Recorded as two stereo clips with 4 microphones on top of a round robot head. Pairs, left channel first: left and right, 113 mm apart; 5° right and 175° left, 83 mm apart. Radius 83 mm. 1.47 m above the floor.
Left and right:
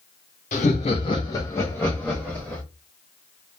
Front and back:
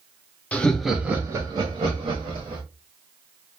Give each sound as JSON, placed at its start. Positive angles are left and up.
{"t": 0.5, "sound": "laughter", "azimuth_deg": 65, "distance_m": 0.5}